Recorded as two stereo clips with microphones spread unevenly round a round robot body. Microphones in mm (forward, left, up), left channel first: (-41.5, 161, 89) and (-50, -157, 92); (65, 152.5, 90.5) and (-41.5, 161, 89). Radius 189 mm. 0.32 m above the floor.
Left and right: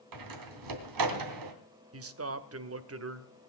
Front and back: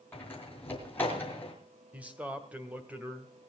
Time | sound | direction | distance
0.1 | a door slam | 85° right | 3 m
1.9 | a man speaking | 110° right | 1.7 m